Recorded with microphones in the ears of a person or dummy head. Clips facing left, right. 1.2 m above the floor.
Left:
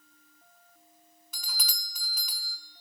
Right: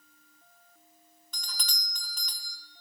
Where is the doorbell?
10° left (ahead or behind), 0.6 m.